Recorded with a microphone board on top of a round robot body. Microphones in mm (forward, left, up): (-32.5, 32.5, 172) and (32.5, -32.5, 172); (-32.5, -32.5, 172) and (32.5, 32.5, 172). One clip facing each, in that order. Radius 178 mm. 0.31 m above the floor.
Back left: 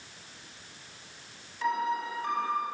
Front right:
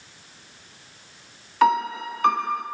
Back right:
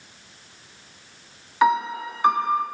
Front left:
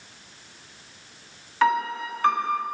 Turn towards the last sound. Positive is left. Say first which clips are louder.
# front right 9 dB, back right 2 dB
turn(degrees=-60)